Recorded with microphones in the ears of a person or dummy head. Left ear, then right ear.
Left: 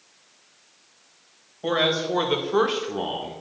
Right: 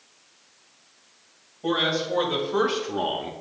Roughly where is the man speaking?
Left.